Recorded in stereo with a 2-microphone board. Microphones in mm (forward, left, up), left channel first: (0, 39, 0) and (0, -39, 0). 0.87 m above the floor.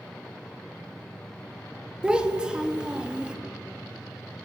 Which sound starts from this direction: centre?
A child speaking, at 2.0 s.